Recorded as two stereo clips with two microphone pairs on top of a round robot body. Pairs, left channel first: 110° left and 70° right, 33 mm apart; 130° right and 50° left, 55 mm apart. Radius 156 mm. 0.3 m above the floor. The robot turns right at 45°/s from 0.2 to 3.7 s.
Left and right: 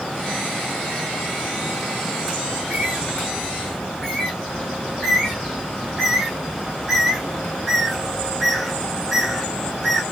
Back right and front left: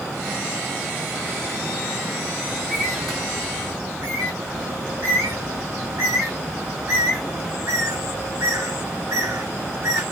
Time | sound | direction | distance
2.5 | a bird | 35° right | 3.5 m